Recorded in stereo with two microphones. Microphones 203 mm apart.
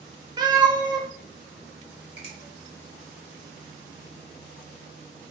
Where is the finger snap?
30° left (ahead or behind), 1.6 m.